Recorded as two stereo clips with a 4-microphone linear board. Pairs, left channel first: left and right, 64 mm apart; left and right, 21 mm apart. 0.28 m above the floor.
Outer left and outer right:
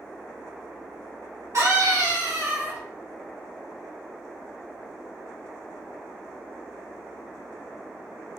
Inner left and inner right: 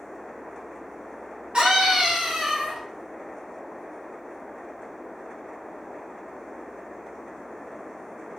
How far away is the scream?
About 1.8 m.